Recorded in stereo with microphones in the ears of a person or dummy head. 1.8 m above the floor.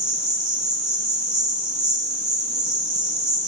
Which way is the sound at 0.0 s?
5° right (ahead or behind).